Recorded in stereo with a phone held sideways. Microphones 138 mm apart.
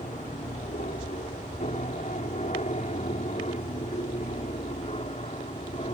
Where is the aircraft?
65° left (ahead or behind); by 5.9 s 50° left (ahead or behind).